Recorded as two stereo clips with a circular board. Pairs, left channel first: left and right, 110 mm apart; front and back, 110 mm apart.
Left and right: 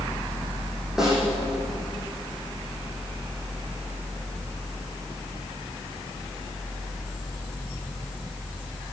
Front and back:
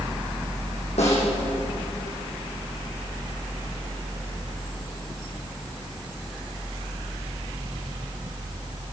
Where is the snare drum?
5° right, 9.5 m.